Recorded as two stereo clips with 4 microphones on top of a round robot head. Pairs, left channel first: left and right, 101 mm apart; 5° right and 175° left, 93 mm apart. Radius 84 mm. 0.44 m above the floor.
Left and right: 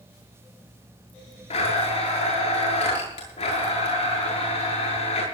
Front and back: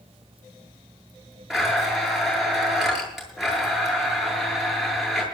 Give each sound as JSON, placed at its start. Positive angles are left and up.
{"t": 1.5, "sound": "a blender", "azimuth_deg": 90, "distance_m": 8.5}